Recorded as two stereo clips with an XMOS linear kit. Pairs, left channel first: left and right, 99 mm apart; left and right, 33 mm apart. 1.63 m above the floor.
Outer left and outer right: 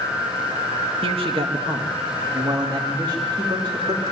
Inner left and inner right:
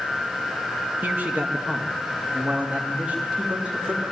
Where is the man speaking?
65° right (ahead or behind), 1.7 m; by 4.0 s 45° right (ahead or behind), 3.5 m.